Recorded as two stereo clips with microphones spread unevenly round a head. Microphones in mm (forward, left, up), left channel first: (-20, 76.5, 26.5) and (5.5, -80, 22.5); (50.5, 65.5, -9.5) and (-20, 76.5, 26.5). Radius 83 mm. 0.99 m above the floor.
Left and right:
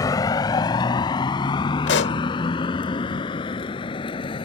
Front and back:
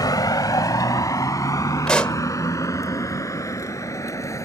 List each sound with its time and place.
0.0 s a vehicle: 30° left; by 4.5 s 35° left
1.9 s a pop: 85° left